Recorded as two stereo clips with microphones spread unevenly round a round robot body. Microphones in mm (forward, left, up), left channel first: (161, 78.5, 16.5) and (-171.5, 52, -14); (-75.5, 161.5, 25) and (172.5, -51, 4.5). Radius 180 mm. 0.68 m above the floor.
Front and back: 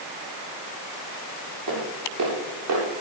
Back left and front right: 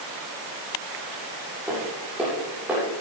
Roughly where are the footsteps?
Behind right.